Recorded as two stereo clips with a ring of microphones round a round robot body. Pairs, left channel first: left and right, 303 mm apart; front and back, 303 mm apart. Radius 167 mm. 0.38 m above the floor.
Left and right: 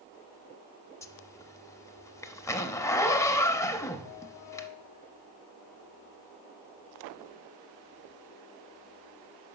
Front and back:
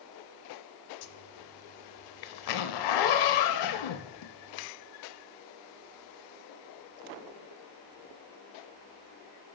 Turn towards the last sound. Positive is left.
turn(degrees=10)